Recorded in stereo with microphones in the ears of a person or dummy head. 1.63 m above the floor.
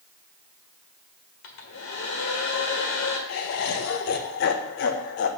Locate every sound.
1.4 s a hair dryer: 75° left (ahead or behind), 1.5 m
3.3 s laughter: 55° left (ahead or behind), 1.0 m